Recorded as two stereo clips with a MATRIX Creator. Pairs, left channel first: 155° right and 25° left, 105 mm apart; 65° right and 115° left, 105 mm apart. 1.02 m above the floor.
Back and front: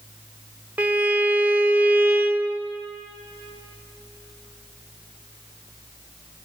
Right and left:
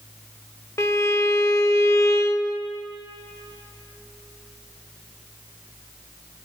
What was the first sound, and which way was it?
A violin, 40° right.